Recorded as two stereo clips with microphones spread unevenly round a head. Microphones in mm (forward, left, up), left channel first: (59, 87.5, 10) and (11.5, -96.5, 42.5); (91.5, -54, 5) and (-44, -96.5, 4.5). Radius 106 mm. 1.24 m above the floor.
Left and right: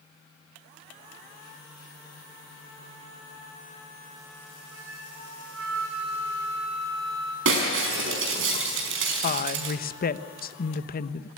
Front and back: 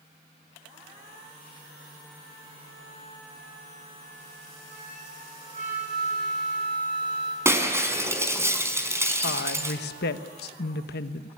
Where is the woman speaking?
30° left, 1.2 m.